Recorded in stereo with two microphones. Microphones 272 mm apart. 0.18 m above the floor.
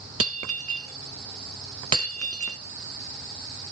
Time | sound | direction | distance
0.2 | breaking glass | 55° right (ahead or behind) | 0.7 m